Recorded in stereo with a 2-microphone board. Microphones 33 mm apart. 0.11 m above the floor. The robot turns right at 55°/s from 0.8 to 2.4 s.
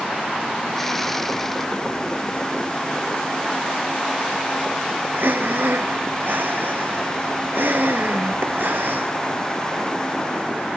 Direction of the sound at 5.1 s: 75° right (ahead or behind).